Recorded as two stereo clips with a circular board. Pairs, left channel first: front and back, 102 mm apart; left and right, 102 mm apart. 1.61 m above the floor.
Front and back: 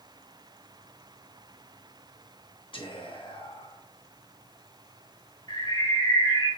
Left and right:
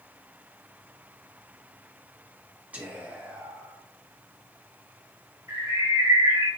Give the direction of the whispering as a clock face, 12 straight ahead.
1 o'clock.